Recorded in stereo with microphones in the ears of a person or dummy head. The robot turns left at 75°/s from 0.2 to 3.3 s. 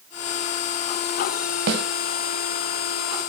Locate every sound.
1.7 s a snare drum: 60° right (ahead or behind), 4 m; by 1.8 s 70° right (ahead or behind), 4 m